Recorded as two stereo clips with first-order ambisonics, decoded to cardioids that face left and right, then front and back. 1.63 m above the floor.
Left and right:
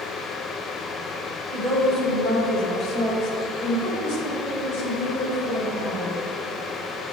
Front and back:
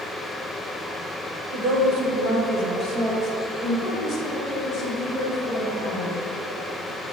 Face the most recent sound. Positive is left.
turn(degrees=65)